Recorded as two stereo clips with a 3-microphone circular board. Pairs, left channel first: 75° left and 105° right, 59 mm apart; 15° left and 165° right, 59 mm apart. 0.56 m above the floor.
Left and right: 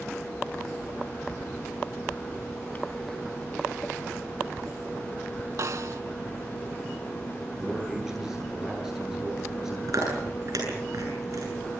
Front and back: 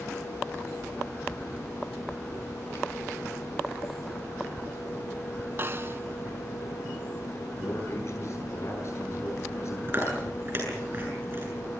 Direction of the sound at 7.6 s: 25° right.